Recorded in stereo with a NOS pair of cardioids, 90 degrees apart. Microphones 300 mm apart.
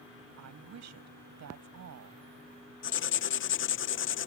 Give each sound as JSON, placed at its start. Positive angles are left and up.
{"t": 0.4, "sound": "a woman speaking", "azimuth_deg": -65}
{"t": 2.8, "sound": "writing", "azimuth_deg": 45}